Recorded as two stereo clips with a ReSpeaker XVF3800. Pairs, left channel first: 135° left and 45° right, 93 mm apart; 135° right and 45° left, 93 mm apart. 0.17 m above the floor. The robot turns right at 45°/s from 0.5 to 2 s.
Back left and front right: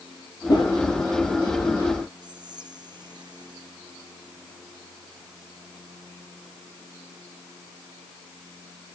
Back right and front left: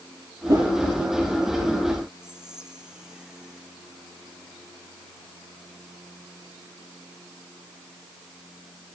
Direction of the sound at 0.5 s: 95° left.